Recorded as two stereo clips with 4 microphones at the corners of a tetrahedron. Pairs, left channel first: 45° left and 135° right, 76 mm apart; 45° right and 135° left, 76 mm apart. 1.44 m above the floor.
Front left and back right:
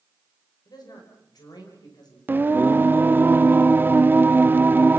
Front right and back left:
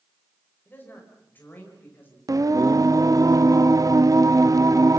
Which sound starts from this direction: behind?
Singing, at 2.3 s.